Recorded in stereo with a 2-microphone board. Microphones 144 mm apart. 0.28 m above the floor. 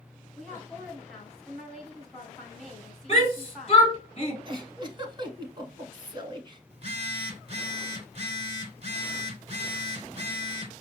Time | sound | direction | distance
0.4 | a woman speaking | 5° left (ahead or behind) | 1.4 m
3.1 | a shout | 45° left (ahead or behind) | 2.5 m
4.5 | a giggle | 35° right (ahead or behind) | 0.8 m
6.7 | a phone buzzing | 45° right (ahead or behind) | 0.8 m